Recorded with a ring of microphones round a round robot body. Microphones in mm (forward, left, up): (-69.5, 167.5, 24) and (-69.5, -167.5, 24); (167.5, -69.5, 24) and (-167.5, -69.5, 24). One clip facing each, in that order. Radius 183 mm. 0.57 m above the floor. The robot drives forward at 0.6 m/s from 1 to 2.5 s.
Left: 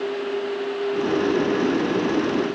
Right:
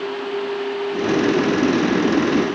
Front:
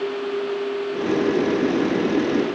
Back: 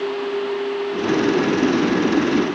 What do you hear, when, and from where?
Only background noise.